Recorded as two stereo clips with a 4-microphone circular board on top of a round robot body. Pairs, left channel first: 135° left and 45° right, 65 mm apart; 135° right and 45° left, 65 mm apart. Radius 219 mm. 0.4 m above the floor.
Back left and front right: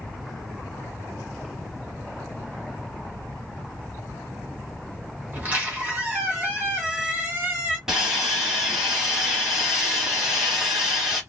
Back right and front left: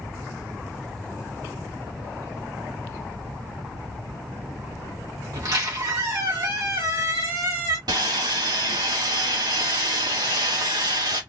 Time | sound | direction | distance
5.3 | a squeak | 15° left | 1.4 m
7.9 | sawing | 35° left | 1.3 m